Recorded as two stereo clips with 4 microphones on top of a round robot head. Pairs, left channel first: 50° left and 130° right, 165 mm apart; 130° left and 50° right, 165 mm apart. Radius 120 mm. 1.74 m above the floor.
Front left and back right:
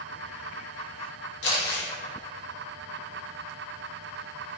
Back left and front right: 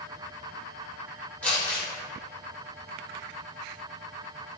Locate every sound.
1.4 s crumpling: 45° left, 2.5 m